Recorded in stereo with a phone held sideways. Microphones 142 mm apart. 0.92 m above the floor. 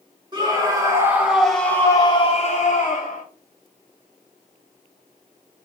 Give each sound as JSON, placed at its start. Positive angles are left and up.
{"t": 0.3, "sound": "a scream", "side_deg": -30, "distance_m": 2.0}